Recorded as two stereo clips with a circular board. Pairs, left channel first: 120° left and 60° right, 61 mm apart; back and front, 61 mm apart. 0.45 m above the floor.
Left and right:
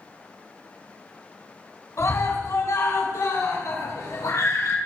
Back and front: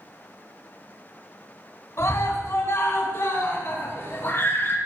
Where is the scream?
150° left, 4 m; by 4.8 s 135° left, 5 m.